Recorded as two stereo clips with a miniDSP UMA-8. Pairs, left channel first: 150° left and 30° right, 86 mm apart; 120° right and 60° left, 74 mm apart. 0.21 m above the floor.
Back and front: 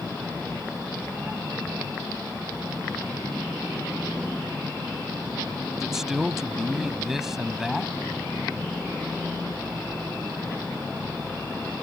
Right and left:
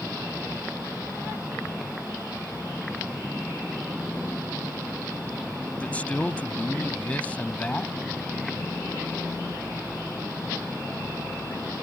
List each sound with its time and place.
5.8 s a man speaking: 105° right